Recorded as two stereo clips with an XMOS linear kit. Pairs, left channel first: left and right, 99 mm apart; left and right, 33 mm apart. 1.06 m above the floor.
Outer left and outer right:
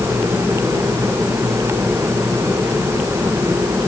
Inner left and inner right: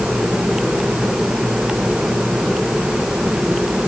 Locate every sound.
Only background noise.